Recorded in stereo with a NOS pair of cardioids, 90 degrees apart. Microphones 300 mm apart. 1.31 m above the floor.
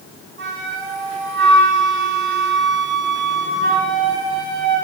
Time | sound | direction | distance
0.4 | a flute | 40° right | 1.8 m